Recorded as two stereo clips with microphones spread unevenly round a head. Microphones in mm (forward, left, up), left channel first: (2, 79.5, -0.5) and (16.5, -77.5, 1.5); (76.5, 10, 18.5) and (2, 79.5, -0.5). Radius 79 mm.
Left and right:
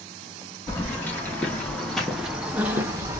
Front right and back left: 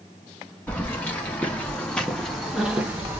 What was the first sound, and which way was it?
Keys jangling, 20° left.